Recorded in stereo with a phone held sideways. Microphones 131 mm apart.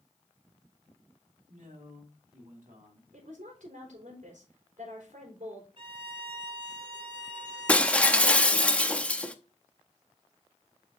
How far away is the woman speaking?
About 4 m.